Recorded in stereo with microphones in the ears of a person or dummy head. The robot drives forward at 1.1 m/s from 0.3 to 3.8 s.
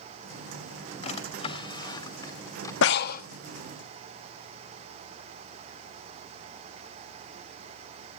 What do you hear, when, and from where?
1.0 s a drawer: 45° left (ahead or behind), 1.7 m; by 2.7 s 20° left (ahead or behind), 3 m
2.8 s breathing: 70° left (ahead or behind), 0.7 m; by 3.2 s 45° left (ahead or behind), 1.0 m